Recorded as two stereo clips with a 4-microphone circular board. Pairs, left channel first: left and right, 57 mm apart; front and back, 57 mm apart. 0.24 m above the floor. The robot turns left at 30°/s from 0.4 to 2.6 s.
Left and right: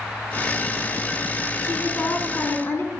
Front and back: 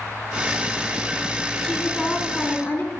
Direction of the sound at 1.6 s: 75° left.